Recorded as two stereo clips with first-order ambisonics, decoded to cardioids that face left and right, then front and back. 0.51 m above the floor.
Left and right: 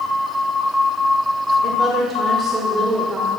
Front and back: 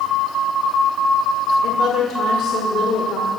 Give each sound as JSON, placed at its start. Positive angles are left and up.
{"t": 1.6, "sound": "a woman speaking", "azimuth_deg": -30, "distance_m": 1.7}